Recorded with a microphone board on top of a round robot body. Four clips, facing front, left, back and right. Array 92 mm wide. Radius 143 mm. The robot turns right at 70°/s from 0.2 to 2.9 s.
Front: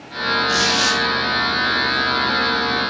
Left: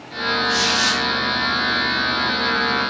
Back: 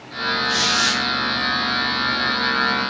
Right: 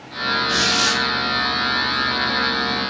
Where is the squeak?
70° right, 0.9 m; by 1.0 s 35° right, 0.9 m.